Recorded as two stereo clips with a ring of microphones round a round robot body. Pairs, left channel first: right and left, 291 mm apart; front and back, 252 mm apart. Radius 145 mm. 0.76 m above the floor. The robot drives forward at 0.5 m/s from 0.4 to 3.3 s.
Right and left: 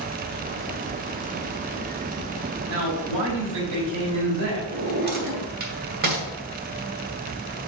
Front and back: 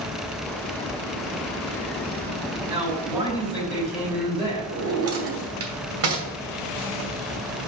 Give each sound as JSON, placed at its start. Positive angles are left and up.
{"t": 2.7, "sound": "a man speaking", "azimuth_deg": 100, "distance_m": 3.0}
{"t": 4.7, "sound": "a drawer", "azimuth_deg": 150, "distance_m": 1.3}